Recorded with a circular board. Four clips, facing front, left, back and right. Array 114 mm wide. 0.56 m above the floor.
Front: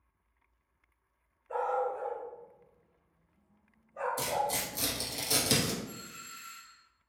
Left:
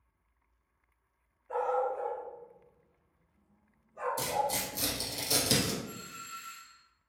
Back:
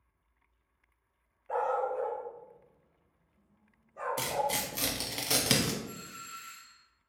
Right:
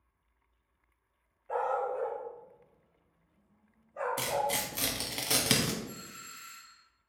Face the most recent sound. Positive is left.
turn(degrees=120)